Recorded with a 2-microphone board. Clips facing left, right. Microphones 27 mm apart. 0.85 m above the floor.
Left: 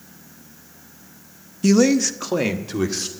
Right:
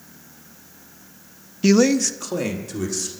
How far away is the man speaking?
About 0.5 m.